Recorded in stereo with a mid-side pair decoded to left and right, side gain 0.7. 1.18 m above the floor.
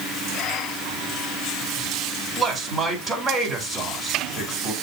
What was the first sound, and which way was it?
A man speaking, 5° right.